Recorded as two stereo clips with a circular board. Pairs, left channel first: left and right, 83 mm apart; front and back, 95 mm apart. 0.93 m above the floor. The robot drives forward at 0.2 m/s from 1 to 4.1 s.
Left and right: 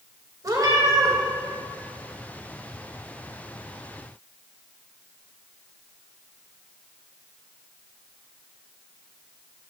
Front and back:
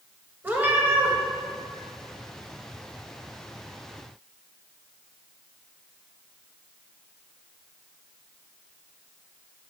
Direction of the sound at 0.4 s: 115° right.